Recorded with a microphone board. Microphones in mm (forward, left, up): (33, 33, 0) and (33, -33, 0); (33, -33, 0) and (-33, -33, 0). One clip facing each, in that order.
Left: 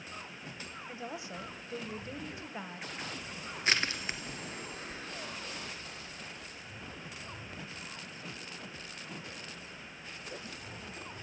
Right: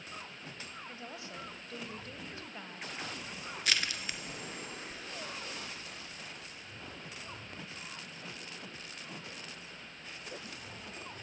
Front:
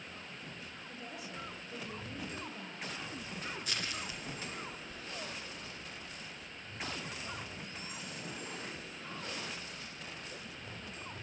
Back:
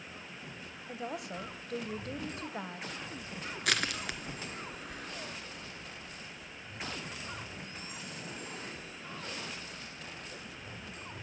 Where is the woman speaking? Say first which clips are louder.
Left 4 dB, back 9 dB; 160° left, 2 m.